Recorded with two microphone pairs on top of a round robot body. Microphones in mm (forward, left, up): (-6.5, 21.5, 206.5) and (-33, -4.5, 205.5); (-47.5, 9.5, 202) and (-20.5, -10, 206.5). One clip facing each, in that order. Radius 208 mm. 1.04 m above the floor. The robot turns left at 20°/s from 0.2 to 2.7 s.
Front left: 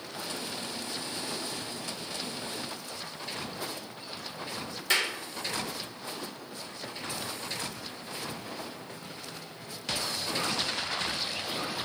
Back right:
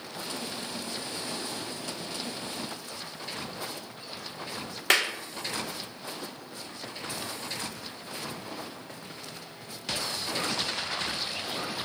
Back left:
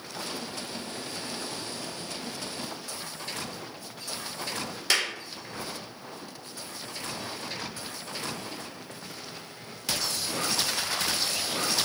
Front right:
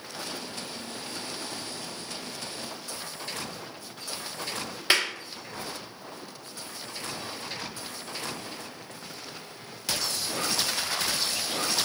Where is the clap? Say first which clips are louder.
Back right 3 dB, front right 2 dB; 100° right, 0.8 m.